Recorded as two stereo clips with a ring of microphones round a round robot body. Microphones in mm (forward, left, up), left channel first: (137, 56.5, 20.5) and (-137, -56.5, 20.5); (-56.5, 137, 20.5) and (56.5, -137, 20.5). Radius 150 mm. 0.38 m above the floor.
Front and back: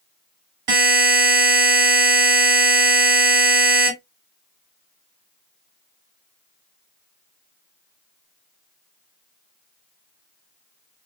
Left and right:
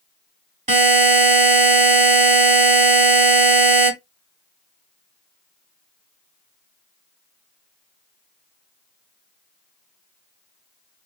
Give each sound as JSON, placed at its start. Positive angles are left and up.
{"t": 0.7, "sound": "a buzzer", "azimuth_deg": -135, "distance_m": 2.0}